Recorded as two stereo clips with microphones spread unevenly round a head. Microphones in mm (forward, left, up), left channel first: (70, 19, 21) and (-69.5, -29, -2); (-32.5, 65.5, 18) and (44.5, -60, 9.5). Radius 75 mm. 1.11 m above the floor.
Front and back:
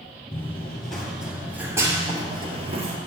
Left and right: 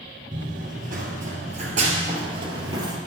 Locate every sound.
0.3 s running footsteps: 45° right, 1.6 m; by 3.0 s 120° right, 1.5 m